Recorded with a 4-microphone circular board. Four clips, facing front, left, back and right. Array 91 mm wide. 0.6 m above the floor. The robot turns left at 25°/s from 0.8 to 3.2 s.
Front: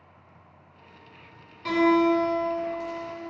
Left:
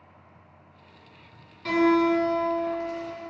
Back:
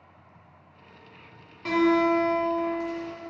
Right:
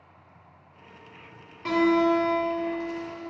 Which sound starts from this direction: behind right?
A guitar, at 1.6 s.